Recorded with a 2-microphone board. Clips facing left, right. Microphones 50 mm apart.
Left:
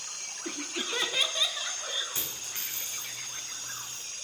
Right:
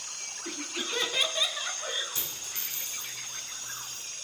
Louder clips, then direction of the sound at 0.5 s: Left 1 dB; 20° left (ahead or behind).